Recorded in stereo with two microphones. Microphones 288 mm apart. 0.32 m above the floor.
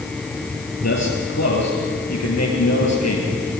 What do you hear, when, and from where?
0.8 s a man speaking: 65° left (ahead or behind), 8 m